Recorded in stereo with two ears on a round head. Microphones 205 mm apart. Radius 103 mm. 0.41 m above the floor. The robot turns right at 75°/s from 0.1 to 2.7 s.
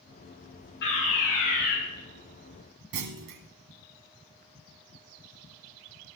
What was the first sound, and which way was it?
A fire alarm, 55° left.